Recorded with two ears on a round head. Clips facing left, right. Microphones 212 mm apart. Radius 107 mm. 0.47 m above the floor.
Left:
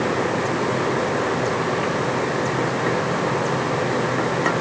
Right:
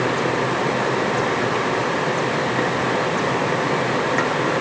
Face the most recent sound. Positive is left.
No sound to turn to.